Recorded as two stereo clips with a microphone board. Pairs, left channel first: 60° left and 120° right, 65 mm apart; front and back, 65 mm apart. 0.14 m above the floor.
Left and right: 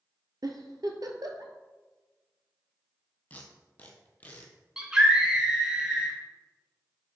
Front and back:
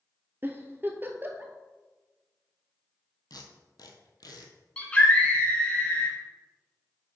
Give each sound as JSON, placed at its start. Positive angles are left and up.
{"t": 0.4, "sound": "a giggle", "azimuth_deg": -125, "distance_m": 0.9}
{"t": 3.3, "sound": "tape being pulled", "azimuth_deg": -5, "distance_m": 1.1}
{"t": 4.8, "sound": "a scream", "azimuth_deg": -55, "distance_m": 1.5}